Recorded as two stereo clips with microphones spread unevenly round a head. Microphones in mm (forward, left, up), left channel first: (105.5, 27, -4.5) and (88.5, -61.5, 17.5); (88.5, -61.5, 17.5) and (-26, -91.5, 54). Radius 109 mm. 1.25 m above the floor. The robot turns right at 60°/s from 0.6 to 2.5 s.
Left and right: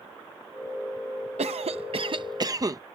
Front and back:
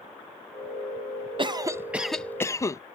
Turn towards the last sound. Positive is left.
turn(degrees=-50)